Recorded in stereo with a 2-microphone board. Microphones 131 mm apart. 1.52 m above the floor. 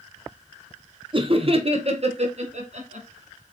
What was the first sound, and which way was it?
Laughter, 40° right (ahead or behind).